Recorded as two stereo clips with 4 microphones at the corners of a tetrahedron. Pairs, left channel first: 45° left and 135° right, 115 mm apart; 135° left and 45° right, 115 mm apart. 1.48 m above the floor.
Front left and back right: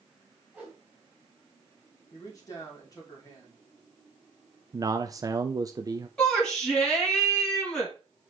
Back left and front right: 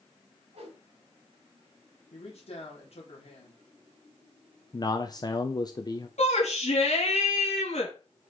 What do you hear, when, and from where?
0.5 s a whoosh: 60° right, 2.5 m
2.1 s a man speaking: 105° left, 2.5 m
4.7 s a man speaking: 175° left, 0.5 m
6.2 s a shout: 130° left, 1.9 m